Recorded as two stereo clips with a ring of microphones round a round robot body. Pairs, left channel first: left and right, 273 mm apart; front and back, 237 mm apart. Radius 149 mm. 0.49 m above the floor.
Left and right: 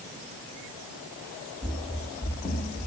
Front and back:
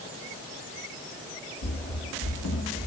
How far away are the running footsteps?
About 0.9 m.